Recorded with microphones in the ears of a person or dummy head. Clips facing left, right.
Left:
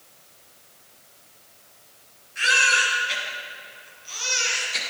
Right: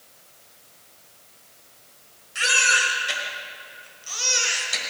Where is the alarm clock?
No alarm clock in this recording.